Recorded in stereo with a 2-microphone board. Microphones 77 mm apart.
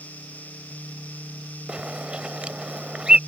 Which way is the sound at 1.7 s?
15° right (ahead or behind).